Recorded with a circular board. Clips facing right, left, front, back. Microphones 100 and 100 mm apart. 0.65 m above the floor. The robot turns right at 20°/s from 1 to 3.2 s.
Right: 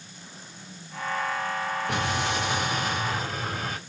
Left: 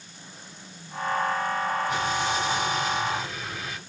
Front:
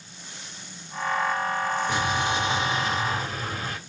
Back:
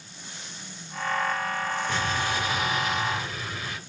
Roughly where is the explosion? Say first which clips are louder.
Left 1 dB, front 3 dB; right.